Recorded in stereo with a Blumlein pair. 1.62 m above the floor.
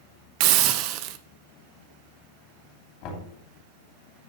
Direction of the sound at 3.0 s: 40° left.